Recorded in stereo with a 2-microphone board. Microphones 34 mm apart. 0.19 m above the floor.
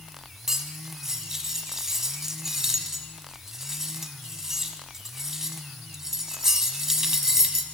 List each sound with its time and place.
0.5 s cutlery clinking: 15° right (ahead or behind), 0.6 m